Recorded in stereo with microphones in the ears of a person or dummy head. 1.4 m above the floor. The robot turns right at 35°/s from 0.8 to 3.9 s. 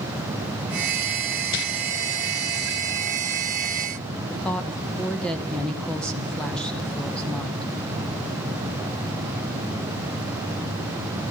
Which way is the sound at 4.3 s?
Centre (ahead or behind).